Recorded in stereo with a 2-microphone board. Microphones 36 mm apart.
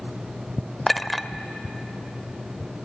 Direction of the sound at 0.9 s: 5° left (ahead or behind).